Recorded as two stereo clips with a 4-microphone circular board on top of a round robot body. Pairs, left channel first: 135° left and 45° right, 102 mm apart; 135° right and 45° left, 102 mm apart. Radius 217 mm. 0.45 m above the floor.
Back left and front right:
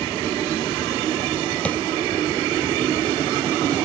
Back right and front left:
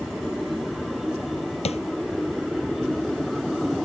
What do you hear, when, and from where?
1.6 s tapping: 145° right